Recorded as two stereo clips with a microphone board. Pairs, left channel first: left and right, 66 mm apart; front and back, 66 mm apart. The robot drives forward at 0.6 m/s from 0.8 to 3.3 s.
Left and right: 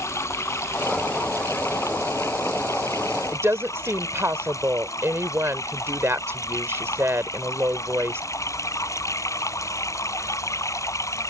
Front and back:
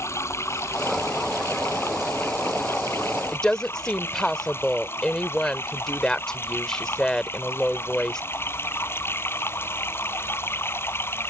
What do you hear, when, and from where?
0.0 s running water: 45° left; by 11.3 s 55° left
3.3 s a woman speaking: 75° right